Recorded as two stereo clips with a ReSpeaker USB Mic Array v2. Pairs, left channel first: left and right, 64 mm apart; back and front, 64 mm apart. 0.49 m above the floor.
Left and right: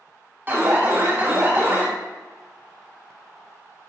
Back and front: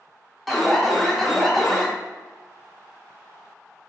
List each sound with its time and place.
0.5 s an alarm: 90° right, 0.6 m